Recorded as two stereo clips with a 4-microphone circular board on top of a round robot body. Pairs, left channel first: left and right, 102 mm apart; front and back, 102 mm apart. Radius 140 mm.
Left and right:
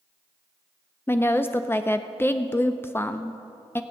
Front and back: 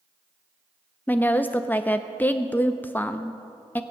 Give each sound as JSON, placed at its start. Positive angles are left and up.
{"t": 1.1, "sound": "a woman speaking", "azimuth_deg": 50, "distance_m": 0.6}